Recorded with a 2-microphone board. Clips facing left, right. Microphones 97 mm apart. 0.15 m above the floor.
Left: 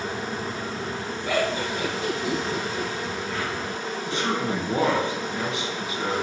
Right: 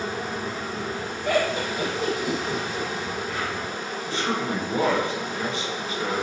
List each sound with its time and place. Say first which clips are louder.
0.0 s an insect: right 1 dB; 10° right (ahead or behind), 2 m
1.2 s laughter: right 2 dB; 60° right (ahead or behind), 1.9 m
4.1 s a man speaking: even; 20° left (ahead or behind), 1.3 m